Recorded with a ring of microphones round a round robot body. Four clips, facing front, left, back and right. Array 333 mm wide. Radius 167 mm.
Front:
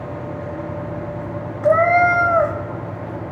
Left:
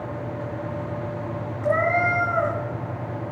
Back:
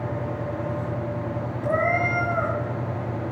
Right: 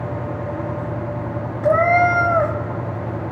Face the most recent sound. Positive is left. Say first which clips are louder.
# right 7 dB, front 10 dB
turn(degrees=-35)